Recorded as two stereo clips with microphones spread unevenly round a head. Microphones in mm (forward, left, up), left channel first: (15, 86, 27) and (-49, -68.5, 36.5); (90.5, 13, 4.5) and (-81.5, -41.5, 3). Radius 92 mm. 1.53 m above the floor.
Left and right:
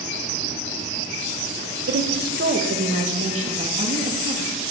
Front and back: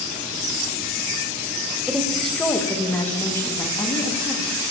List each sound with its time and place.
1.9 s a woman speaking: 75° right, 1.8 m; by 4.6 s 55° right, 4 m